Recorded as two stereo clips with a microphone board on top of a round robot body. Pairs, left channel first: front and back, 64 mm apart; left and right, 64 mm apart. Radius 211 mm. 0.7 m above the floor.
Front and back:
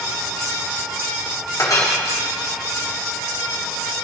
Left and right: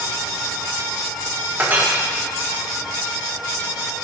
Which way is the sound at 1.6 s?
35° right.